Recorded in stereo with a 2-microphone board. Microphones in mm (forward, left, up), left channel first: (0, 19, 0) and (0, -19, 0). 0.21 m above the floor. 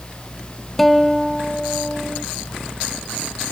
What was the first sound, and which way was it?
A guitar, 5° left (ahead or behind).